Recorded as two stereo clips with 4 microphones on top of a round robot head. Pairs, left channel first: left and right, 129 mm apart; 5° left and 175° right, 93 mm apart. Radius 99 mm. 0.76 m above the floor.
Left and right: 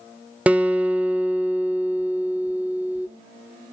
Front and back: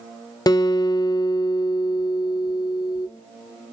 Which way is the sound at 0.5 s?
15° right.